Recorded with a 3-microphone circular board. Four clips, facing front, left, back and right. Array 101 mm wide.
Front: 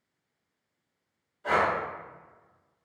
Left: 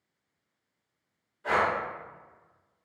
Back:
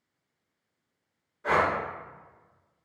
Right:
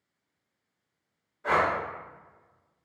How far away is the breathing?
About 1.3 m.